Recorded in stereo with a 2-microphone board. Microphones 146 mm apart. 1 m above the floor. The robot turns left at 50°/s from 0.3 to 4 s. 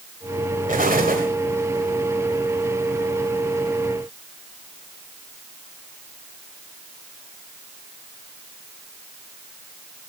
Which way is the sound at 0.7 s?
65° right.